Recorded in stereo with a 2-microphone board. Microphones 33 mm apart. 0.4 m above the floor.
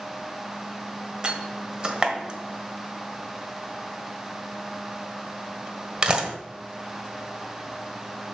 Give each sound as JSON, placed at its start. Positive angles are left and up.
{"t": 1.2, "sound": "a door slam", "side_deg": -30, "distance_m": 1.2}